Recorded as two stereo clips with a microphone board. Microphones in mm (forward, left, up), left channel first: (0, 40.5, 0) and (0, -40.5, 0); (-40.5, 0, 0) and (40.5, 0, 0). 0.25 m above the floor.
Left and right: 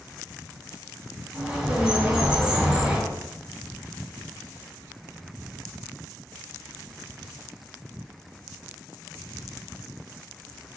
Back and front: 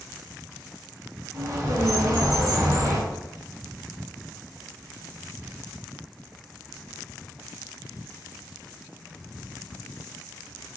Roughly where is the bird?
Ahead.